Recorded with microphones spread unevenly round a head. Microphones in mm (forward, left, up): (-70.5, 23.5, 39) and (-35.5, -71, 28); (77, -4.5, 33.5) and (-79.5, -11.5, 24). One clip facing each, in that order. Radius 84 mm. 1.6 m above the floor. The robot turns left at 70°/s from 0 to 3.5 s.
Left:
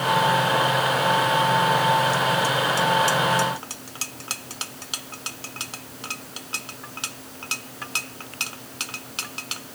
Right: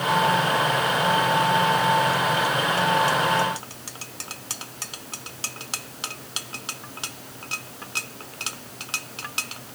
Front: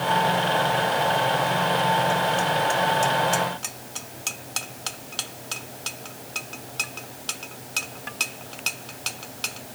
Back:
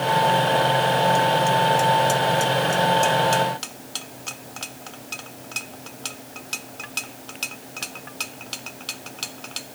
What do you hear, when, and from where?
Only background noise.